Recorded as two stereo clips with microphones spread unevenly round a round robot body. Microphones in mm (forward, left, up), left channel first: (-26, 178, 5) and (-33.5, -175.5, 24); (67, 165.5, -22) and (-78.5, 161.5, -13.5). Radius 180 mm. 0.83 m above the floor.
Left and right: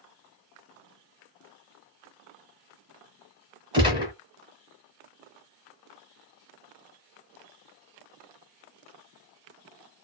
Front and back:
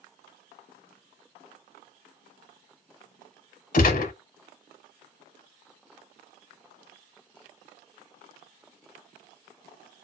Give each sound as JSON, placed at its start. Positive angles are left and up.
{"t": 3.7, "sound": "a gunshot", "azimuth_deg": -20, "distance_m": 0.8}